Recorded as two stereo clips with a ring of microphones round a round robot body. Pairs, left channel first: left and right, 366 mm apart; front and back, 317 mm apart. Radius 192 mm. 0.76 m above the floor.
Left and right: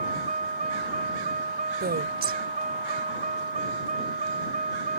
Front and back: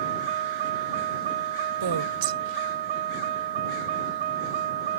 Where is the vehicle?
160° right.